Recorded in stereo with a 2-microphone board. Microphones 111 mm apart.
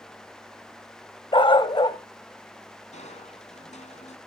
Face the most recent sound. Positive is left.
turn(degrees=80)